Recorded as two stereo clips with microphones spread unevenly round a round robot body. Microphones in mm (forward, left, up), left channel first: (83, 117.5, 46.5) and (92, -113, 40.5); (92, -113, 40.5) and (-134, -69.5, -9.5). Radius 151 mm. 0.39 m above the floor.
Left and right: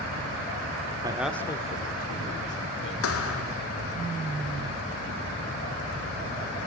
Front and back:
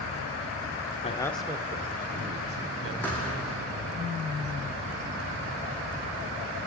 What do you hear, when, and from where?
1.0 s a man speaking: 65° right, 0.8 m; by 4.0 s 135° left, 3.5 m
3.0 s a thud: 70° left, 2.5 m